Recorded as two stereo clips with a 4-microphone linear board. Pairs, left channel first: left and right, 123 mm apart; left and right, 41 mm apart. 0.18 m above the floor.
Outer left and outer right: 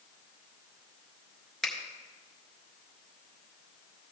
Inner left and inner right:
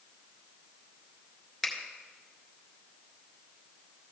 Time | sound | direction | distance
1.6 | a finger snap | 5° left (ahead or behind) | 1.8 m